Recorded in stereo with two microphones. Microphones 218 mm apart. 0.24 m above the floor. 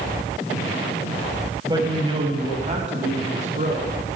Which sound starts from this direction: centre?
A woman speaking, at 1.6 s.